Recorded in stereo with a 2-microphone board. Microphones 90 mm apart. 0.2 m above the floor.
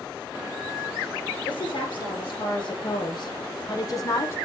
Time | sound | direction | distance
1.5 | a woman speaking | 55° left (ahead or behind) | 3.5 m